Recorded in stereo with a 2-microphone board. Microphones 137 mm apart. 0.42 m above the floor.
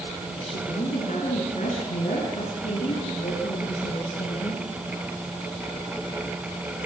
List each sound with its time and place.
0.4 s a woman speaking: 60° left (ahead or behind), 6 m; by 4.7 s 70° left (ahead or behind), 6 m